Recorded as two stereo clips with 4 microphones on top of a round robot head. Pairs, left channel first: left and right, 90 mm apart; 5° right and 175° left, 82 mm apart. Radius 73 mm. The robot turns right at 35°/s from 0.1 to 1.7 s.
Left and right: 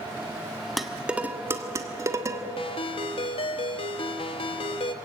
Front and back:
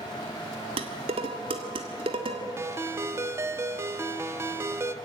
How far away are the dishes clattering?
About 1.5 m.